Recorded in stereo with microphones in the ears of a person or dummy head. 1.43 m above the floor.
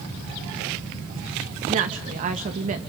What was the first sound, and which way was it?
A woman speaking, 40° right (ahead or behind).